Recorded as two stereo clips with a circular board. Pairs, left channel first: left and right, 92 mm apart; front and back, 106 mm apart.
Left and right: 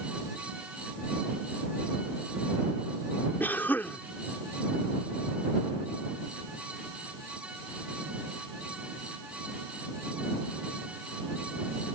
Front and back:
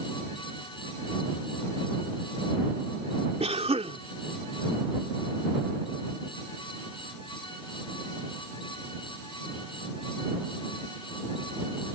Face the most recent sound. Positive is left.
turn(degrees=160)